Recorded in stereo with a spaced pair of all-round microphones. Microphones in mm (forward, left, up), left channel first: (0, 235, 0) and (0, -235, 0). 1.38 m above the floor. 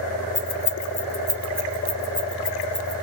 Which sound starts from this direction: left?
Keys jangling, at 0.3 s.